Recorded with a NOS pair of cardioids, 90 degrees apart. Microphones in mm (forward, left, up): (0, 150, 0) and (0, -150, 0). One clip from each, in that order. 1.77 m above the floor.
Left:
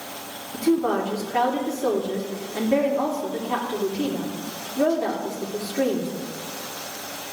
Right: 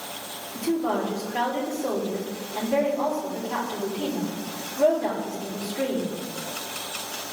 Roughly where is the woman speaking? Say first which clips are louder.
Left 4 dB; ahead left.